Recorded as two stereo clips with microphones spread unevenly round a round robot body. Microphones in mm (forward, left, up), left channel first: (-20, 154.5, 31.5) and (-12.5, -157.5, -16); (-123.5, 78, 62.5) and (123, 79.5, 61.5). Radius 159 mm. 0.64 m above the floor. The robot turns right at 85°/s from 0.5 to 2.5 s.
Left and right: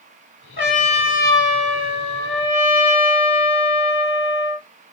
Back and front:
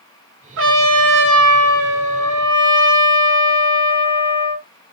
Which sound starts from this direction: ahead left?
A trumpet, at 0.6 s.